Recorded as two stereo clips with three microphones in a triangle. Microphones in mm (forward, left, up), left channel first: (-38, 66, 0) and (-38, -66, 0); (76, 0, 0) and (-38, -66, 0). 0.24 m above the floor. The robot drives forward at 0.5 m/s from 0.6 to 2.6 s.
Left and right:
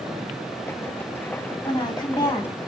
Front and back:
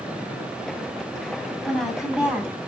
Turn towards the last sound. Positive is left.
turn(degrees=135)